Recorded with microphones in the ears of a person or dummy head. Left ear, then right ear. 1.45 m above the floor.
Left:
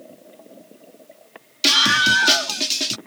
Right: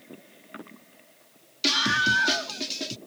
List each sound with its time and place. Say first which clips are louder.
1.6 s a scream: left 7 dB; 30° left (ahead or behind); by 3.0 s 40° left (ahead or behind)